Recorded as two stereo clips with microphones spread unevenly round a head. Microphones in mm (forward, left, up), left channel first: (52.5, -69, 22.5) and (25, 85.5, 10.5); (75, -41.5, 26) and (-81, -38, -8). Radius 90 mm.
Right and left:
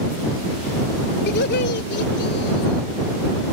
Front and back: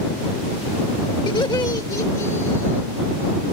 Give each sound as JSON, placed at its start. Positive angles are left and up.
{"t": 1.3, "sound": "laughter", "azimuth_deg": -65}